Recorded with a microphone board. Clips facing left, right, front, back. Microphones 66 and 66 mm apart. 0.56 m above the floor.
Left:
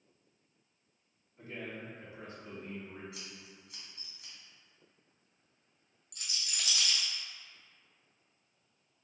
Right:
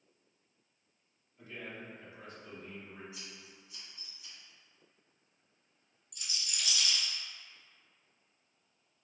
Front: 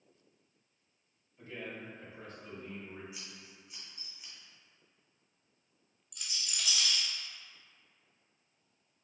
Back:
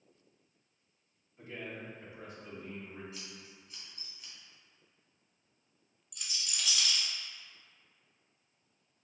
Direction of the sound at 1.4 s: 130° left.